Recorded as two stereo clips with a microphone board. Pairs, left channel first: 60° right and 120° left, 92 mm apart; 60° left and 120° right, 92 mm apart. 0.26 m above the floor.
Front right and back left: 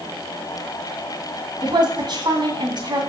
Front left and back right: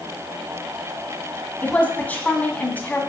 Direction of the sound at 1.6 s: 130° left.